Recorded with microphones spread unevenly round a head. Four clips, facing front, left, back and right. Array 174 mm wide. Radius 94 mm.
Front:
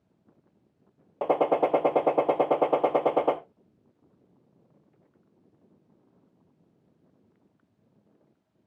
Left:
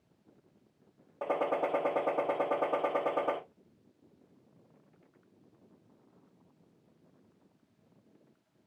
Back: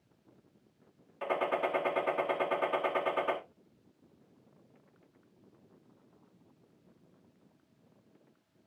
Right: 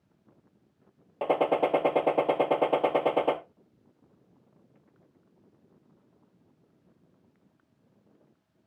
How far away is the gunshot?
About 0.8 m.